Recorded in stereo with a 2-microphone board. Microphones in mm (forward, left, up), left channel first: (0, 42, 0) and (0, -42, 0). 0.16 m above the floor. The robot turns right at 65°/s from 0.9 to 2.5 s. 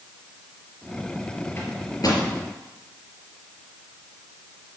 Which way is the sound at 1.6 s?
30° left (ahead or behind).